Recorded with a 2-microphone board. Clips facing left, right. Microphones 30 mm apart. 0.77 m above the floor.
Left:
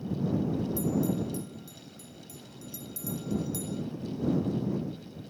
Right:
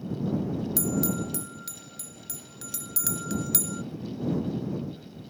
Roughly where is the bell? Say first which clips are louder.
Right 1 dB; right.